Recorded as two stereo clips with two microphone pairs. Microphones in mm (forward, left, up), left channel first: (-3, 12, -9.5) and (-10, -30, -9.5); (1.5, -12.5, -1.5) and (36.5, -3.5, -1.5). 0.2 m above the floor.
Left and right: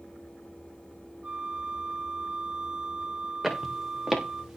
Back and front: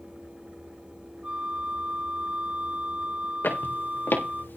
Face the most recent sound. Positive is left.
turn(degrees=-175)